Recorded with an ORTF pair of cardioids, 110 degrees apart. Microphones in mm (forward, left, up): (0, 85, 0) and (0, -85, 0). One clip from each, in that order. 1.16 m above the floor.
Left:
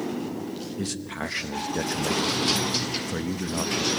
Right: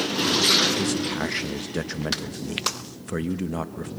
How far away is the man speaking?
About 0.9 m.